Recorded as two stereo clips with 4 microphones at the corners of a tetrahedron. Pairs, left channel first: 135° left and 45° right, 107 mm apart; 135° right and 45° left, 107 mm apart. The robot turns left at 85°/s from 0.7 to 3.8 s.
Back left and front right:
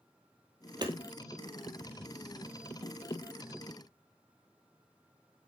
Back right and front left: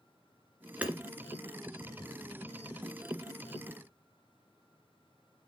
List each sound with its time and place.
0.8 s hammering: 25° right, 2.0 m; by 0.9 s 35° right, 2.0 m